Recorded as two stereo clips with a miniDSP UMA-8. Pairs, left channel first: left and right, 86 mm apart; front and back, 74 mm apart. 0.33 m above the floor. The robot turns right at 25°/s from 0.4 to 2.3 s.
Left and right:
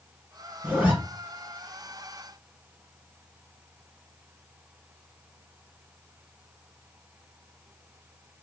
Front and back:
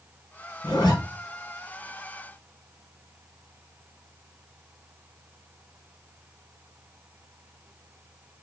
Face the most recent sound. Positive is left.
turn(degrees=20)